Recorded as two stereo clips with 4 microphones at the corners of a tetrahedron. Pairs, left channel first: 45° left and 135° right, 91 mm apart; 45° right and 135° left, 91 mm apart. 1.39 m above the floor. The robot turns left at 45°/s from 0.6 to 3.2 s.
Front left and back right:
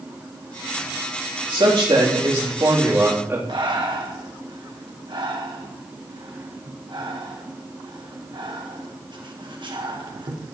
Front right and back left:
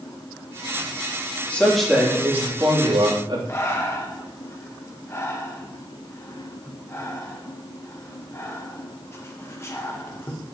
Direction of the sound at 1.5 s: 120° right.